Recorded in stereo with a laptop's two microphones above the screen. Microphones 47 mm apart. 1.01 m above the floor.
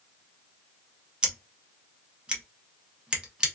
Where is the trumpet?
No trumpet in this recording.